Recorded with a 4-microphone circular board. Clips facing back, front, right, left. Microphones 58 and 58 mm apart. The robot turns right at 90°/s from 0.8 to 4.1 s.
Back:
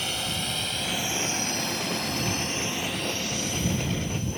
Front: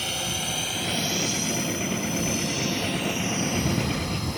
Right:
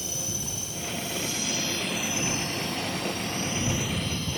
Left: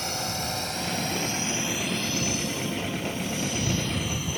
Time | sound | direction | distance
0.0 | a drone | 90° left | ?